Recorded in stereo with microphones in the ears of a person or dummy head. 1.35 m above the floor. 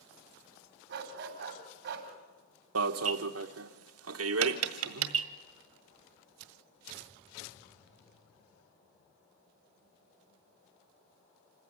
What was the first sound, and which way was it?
A dog barking, 55° right (ahead or behind).